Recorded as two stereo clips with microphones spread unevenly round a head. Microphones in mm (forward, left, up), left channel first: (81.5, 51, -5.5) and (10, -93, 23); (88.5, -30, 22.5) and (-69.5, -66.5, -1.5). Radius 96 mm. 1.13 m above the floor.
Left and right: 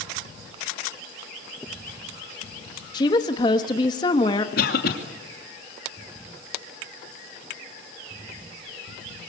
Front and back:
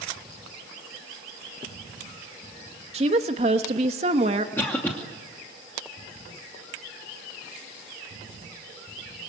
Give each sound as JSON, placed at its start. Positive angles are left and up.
{"t": 2.9, "sound": "a woman speaking", "azimuth_deg": 135, "distance_m": 1.1}
{"t": 4.6, "sound": "a cough", "azimuth_deg": 95, "distance_m": 2.5}